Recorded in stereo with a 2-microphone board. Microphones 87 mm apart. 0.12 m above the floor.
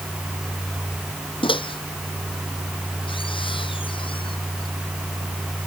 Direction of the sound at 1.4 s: 75° left (ahead or behind).